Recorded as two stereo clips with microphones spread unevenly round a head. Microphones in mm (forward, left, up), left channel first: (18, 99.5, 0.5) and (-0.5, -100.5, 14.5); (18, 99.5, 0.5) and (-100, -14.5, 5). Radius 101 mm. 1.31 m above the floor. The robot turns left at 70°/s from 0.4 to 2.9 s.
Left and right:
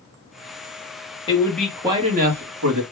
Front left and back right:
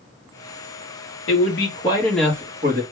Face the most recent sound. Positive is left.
turn(degrees=-95)